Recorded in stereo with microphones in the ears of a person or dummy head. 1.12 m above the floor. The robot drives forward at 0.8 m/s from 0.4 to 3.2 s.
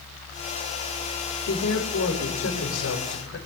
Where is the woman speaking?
85° left, 6.5 m; by 3.4 s 75° left (ahead or behind), 7 m.